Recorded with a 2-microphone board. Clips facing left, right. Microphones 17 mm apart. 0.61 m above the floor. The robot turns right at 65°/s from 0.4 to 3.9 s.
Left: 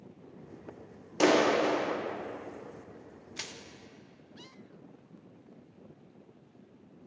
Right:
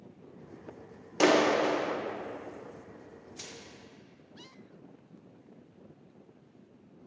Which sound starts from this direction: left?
Crushing, at 3.4 s.